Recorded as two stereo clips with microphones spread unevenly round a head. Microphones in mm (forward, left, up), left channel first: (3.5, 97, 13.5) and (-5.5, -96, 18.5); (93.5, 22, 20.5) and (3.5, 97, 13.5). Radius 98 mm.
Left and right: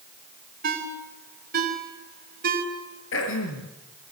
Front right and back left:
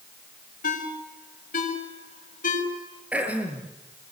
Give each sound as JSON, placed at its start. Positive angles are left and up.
{"t": 0.6, "sound": "a ringtone", "azimuth_deg": -50, "distance_m": 5.5}
{"t": 3.1, "sound": "throat clearing", "azimuth_deg": 60, "distance_m": 5.0}